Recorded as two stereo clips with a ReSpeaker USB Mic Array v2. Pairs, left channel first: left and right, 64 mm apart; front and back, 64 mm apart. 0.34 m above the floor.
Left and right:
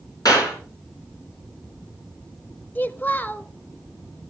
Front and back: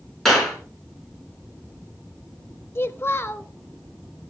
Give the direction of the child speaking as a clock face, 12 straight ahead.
11 o'clock.